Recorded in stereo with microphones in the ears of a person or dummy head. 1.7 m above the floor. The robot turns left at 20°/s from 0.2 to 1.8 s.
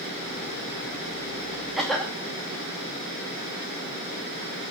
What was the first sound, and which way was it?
A cough, 5° right (ahead or behind).